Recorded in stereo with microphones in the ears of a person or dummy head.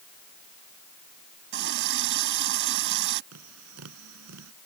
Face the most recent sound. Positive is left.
turn(degrees=-85)